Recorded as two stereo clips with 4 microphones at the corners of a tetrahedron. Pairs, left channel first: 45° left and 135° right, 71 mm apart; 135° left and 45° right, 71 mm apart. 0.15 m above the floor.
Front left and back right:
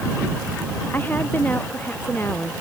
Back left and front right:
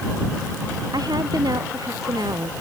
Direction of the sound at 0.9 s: 20° right.